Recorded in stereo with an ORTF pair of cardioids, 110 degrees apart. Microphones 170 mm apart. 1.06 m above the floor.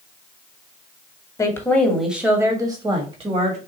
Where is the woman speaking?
20° left, 1.4 m; by 3.6 s 40° right, 2 m.